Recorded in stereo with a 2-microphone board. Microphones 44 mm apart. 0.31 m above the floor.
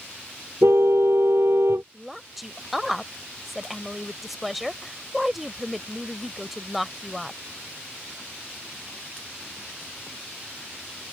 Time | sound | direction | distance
0.6 | a car horn | 75° right (ahead or behind) | ?
1.9 | a woman speaking | 5° right (ahead or behind) | ?